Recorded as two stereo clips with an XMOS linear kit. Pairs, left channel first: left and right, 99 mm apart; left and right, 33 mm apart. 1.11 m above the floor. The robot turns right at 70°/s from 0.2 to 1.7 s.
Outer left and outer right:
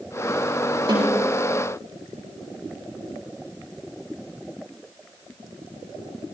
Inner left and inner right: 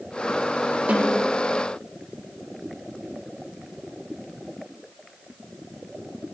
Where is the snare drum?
50° right (ahead or behind), 8 m; by 1.3 s 75° right (ahead or behind), 8 m.